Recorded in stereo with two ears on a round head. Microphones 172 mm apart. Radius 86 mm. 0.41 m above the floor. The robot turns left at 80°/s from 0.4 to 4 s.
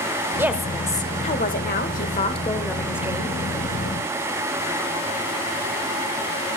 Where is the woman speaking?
165° right, 1.1 m; by 3.4 s 40° right, 1.1 m.